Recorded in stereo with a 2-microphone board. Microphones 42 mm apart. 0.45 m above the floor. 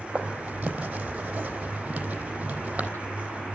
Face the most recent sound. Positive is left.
turn(degrees=-30)  # may be behind; listen again after turning